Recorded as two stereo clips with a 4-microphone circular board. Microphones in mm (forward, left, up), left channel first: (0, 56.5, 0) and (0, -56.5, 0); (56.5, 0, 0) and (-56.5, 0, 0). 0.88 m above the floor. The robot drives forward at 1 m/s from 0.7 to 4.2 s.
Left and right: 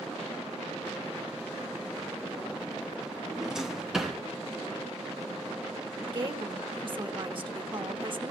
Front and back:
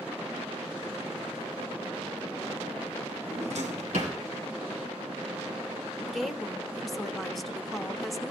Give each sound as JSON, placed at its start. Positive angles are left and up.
{"t": 3.3, "sound": "a drawer", "azimuth_deg": -175, "distance_m": 1.5}
{"t": 6.1, "sound": "a woman speaking", "azimuth_deg": -90, "distance_m": 1.1}